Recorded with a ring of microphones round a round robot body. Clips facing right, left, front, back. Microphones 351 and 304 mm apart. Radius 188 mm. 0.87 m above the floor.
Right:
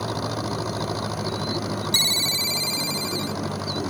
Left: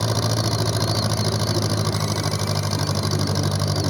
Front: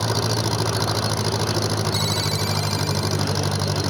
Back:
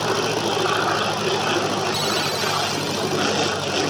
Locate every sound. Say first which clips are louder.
0.0 s an engine running: left 3 dB, back 3 dB; 50° left
1.9 s a ringtone: left 5 dB, back 2 dB; 90° right